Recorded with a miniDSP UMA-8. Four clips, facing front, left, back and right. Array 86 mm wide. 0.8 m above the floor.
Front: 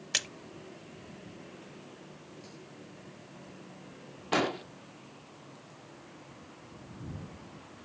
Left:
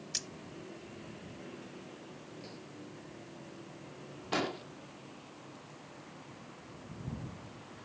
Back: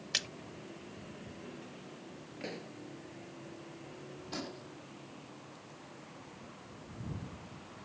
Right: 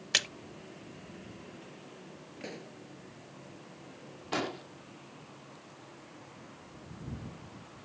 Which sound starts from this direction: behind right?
A pop, at 2.4 s.